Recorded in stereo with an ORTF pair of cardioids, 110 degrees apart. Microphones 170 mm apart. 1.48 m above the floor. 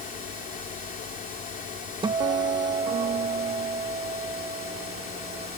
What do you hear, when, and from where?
0.0 s a fan: 55° left
2.0 s a guitar: 25° right